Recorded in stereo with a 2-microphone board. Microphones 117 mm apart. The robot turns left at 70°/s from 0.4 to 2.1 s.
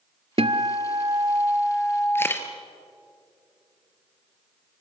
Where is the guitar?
80° right, 0.8 m; by 2.3 s 160° left, 0.8 m.